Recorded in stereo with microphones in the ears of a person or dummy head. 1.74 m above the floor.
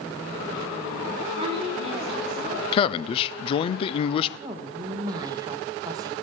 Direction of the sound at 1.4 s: 20° right (ahead or behind).